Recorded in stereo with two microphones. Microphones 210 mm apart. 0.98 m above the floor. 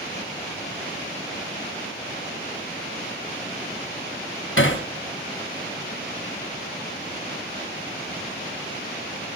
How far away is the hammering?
About 2.5 m.